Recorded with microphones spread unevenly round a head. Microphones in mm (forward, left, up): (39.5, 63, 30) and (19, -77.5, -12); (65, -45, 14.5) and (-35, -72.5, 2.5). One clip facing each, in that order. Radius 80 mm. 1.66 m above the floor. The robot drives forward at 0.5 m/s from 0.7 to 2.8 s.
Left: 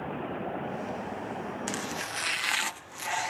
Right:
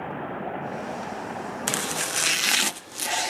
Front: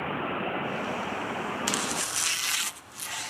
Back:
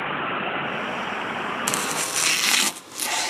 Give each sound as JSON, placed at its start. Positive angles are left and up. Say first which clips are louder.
{"t": 1.7, "sound": "chopping", "louder": "right 4 dB, back 4 dB", "azimuth_deg": -135}